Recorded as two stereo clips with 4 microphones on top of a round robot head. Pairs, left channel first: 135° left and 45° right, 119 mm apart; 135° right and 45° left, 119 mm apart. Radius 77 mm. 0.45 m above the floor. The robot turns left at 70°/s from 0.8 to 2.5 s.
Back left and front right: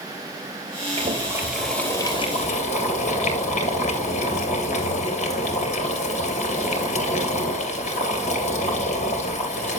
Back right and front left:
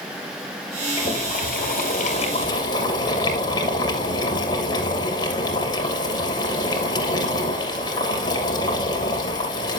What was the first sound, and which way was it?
Boiling, 90° right.